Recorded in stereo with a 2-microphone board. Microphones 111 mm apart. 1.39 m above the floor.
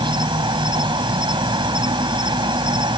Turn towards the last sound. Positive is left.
turn(degrees=-45)  # may be behind; listen again after turning